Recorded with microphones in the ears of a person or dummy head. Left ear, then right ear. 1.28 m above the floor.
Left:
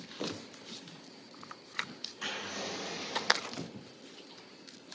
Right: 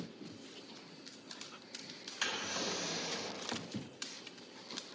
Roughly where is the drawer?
Right.